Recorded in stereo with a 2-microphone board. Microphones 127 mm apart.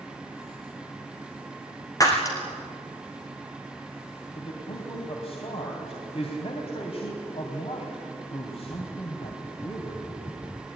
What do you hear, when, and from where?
2.0 s breaking glass: 30° left (ahead or behind), 4 m
4.3 s a man speaking: 55° left (ahead or behind), 3 m